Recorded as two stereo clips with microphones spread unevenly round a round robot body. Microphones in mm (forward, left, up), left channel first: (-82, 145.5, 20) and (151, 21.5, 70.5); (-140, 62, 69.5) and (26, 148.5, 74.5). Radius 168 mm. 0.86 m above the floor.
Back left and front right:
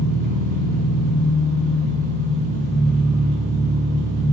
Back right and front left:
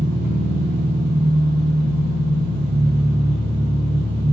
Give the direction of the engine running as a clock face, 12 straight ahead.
11 o'clock.